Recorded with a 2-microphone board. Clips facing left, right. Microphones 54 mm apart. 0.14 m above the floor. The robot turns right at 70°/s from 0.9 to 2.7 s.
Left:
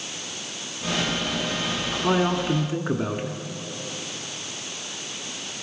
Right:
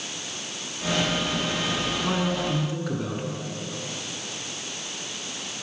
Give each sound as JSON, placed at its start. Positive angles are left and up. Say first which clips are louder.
{"t": 1.9, "sound": "a man speaking", "louder": "left 8 dB", "azimuth_deg": 40, "distance_m": 1.2}